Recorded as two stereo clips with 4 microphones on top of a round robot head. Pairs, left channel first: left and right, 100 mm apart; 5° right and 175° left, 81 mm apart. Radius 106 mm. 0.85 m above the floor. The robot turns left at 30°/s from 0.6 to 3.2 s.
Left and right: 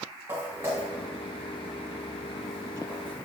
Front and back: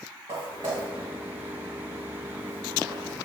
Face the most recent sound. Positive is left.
turn(degrees=160)